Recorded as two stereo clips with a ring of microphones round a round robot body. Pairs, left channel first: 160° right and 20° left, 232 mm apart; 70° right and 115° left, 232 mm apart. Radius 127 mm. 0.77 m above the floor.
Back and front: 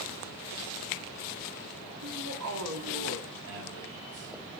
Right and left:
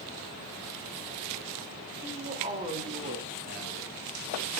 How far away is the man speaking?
About 7 m.